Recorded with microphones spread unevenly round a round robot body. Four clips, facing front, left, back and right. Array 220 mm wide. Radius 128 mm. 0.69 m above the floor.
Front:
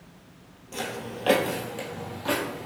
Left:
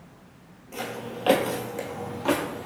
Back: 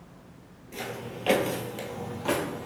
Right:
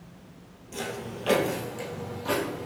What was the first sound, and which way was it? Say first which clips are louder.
Footsteps: left 1 dB, front 3 dB; 40° left.